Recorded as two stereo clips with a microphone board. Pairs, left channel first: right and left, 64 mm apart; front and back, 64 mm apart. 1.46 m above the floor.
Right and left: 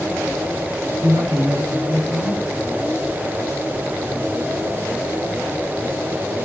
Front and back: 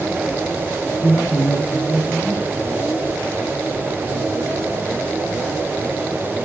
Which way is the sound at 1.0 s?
80° left.